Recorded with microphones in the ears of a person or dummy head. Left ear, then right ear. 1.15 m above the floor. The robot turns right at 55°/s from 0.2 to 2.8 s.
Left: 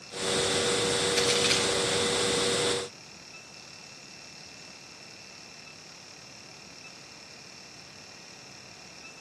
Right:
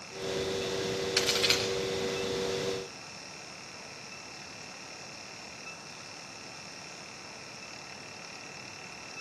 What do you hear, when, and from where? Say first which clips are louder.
1.2 s a crack: even; 50° right (ahead or behind), 7 m; by 1.6 s 25° right (ahead or behind), 7 m